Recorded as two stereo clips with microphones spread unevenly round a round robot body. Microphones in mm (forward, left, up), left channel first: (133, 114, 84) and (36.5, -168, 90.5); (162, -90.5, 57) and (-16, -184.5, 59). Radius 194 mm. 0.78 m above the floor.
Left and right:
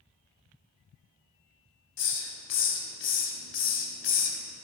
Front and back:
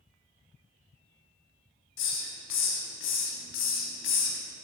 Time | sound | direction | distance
2.0 | a hiss | 25° left | 1.1 m